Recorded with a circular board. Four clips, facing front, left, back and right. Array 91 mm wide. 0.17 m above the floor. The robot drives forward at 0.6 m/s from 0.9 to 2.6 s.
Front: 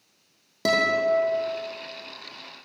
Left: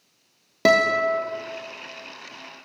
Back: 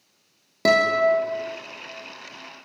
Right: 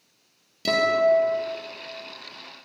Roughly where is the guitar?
Left.